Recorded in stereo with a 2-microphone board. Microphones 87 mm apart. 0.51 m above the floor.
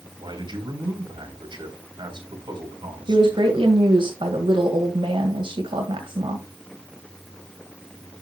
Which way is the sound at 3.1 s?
70° right (ahead or behind).